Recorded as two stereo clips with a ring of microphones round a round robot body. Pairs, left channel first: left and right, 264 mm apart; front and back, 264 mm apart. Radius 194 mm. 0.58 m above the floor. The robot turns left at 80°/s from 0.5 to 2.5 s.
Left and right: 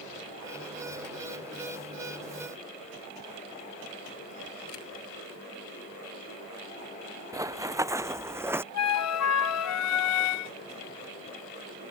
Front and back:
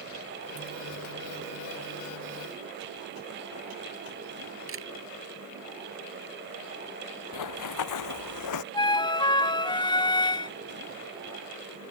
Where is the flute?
75° left.